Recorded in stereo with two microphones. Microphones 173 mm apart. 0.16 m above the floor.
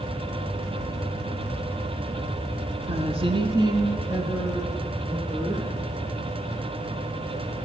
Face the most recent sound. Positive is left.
turn(degrees=-5)  # may be behind; listen again after turning